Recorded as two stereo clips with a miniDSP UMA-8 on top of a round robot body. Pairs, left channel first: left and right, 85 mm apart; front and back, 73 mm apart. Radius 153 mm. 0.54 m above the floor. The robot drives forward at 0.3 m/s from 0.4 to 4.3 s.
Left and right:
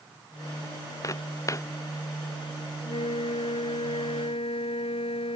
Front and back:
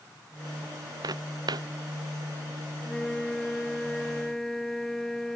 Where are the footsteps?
145° left.